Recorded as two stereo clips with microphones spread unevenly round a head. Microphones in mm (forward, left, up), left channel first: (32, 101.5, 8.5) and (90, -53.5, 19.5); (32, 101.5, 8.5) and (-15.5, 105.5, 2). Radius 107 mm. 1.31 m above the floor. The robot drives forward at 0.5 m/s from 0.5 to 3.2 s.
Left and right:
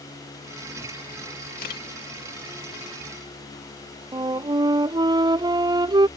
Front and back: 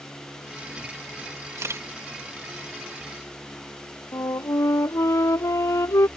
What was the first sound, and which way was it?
A camera shutter, 160° left.